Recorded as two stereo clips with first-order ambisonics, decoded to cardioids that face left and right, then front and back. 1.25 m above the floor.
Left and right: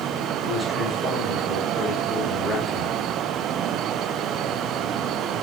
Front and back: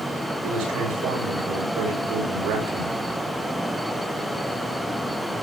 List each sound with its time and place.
0.4 s a man speaking: 170° left, 6.5 m